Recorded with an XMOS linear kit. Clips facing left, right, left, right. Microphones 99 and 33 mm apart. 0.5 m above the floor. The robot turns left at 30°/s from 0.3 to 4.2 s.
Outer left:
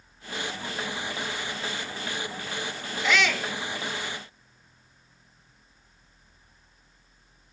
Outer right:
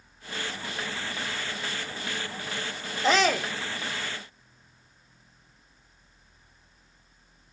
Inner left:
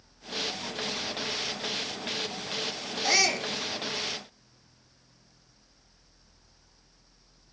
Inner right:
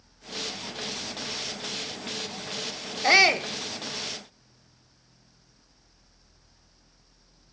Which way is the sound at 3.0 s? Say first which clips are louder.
Outer right 3 dB, inner right 7 dB; 35° right (ahead or behind).